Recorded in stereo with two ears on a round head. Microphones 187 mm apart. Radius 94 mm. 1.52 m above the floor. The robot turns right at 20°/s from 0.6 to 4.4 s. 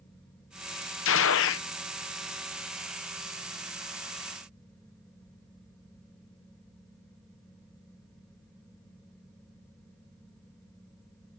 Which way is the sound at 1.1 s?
65° left (ahead or behind).